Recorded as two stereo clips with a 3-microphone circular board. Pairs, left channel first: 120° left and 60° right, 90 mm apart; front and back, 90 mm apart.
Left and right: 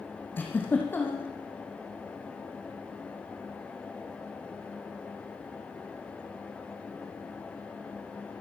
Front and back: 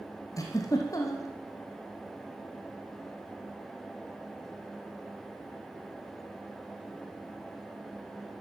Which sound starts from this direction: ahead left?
A giggle, at 0.4 s.